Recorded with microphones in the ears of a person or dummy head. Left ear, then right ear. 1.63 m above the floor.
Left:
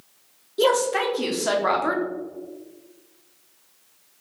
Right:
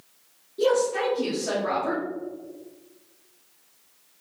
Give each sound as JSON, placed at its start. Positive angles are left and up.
{"t": 0.6, "sound": "a woman speaking", "side_deg": 30, "distance_m": 0.7}